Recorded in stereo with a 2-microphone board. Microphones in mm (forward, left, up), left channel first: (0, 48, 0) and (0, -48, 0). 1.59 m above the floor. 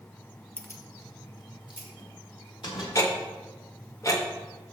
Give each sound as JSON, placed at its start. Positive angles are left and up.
{"t": 0.6, "sound": "keys jangling", "side_deg": 20, "distance_m": 0.8}
{"t": 3.0, "sound": "ticking", "side_deg": 35, "distance_m": 1.1}